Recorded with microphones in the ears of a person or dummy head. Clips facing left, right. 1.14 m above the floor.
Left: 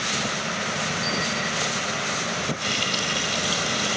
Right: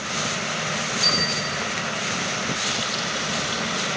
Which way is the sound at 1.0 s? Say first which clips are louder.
Even; 40° right (ahead or behind).